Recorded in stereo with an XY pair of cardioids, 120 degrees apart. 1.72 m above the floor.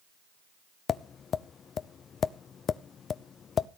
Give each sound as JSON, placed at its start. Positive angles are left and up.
{"t": 0.9, "sound": "tapping", "azimuth_deg": 45, "distance_m": 0.7}